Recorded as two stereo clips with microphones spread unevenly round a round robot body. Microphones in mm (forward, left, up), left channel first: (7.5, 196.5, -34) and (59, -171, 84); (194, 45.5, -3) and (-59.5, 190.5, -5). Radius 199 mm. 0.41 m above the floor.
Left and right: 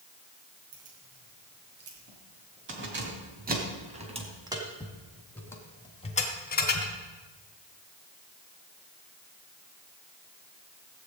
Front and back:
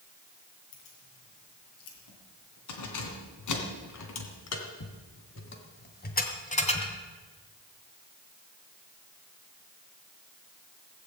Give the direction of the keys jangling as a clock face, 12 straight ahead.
1 o'clock.